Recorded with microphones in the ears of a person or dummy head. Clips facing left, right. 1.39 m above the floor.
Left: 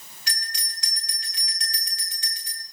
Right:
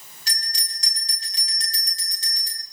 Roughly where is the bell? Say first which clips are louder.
Left 1 dB; right.